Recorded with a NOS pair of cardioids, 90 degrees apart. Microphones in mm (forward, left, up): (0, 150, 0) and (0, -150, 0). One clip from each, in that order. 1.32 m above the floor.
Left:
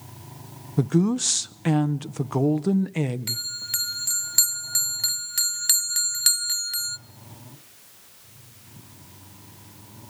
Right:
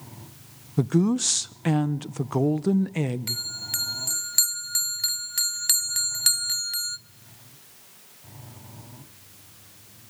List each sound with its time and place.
0.8 s a woman speaking: straight ahead, 0.8 m
3.3 s a bell: 5° left, 0.6 m